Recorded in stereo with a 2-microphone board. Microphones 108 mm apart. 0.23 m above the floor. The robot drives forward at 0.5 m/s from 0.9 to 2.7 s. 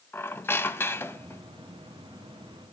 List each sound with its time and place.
0.1 s a squeak: 20° left (ahead or behind), 0.7 m; by 1.4 s 25° left (ahead or behind), 0.7 m